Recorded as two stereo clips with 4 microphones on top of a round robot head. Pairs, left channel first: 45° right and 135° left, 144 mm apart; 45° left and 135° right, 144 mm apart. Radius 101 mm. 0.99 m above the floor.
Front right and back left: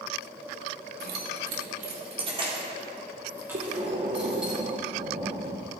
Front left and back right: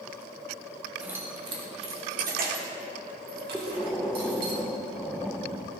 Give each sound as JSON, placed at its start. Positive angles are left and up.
{"t": 1.0, "sound": "keys jangling", "azimuth_deg": 140, "distance_m": 1.6}
{"t": 3.5, "sound": "breathing", "azimuth_deg": 130, "distance_m": 1.1}